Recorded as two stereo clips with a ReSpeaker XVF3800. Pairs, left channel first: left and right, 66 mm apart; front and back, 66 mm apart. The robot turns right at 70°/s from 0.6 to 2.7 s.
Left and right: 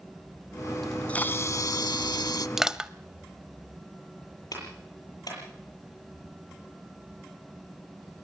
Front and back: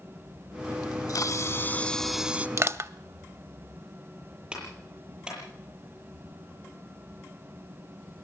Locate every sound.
0.8 s a camera shutter: straight ahead, 0.6 m; by 2.5 s 115° left, 0.6 m
2.6 s crushing: 170° right, 0.6 m; by 2.9 s 165° right, 0.6 m
4.5 s a clap: 105° left, 8 m